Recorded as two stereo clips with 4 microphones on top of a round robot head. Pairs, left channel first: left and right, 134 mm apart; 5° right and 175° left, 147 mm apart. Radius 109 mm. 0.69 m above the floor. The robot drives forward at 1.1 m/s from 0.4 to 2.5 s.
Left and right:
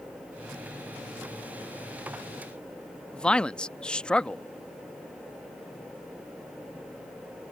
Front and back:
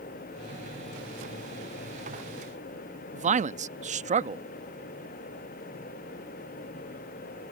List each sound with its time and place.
3.1 s a man speaking: 170° left